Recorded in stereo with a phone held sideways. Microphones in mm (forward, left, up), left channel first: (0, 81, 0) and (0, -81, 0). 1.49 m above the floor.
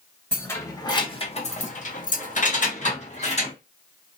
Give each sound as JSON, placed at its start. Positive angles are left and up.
{"t": 0.3, "sound": "keys jangling", "side_deg": 10, "distance_m": 0.8}